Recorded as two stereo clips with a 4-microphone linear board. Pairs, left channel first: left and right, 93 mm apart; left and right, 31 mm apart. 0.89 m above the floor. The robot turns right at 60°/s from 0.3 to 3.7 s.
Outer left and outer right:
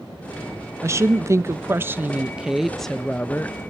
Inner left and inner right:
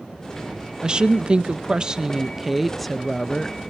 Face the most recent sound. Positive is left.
turn(degrees=60)